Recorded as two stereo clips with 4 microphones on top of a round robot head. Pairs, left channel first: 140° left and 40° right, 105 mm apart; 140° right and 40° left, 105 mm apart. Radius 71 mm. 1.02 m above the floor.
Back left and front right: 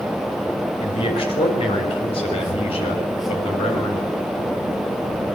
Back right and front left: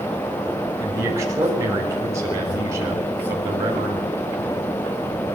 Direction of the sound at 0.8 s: 105° left.